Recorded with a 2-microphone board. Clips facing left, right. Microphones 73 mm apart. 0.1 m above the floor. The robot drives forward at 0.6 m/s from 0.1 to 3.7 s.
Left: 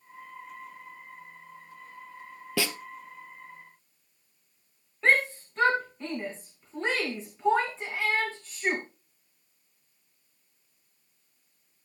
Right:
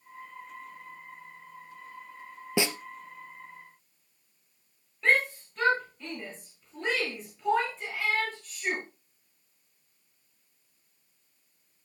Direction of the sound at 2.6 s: 20° right (ahead or behind).